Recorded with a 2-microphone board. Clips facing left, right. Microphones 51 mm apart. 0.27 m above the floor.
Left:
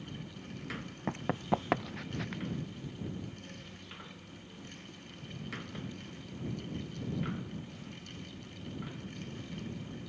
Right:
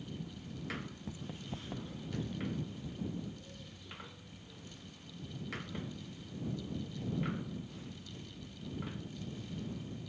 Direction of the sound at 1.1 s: 65° left (ahead or behind).